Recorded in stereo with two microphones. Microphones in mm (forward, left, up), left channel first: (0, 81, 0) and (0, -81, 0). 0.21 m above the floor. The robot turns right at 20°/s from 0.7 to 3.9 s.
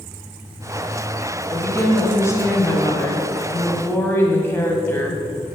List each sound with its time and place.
1.5 s a woman speaking: 20° left (ahead or behind), 1.5 m; by 5.2 s 15° left (ahead or behind), 1.5 m